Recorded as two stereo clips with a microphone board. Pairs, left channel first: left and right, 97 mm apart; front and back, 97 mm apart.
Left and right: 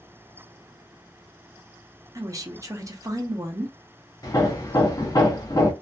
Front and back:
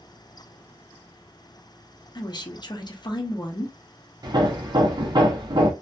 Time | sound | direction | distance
2.1 | a woman speaking | 35° right | 0.6 m
4.2 | hammering | 140° left | 0.7 m